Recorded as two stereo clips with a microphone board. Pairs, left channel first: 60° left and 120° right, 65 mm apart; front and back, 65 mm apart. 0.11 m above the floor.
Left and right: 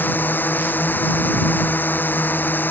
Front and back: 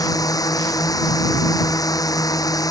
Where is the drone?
Straight ahead.